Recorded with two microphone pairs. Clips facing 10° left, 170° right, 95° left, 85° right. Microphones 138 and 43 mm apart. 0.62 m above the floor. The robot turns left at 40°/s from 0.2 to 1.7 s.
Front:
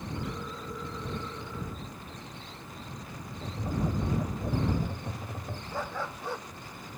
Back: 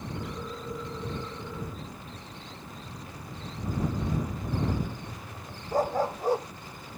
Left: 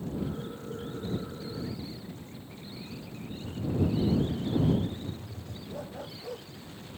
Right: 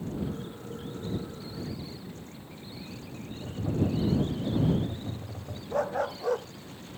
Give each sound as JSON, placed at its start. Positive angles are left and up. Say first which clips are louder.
{"t": 3.4, "sound": "tapping", "louder": "even, even", "azimuth_deg": -45}
{"t": 5.7, "sound": "a dog barking", "louder": "back 10 dB, right 13 dB", "azimuth_deg": -120}